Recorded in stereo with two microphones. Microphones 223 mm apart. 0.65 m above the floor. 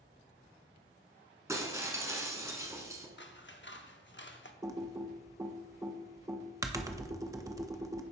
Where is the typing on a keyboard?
15° right (ahead or behind), 0.6 m.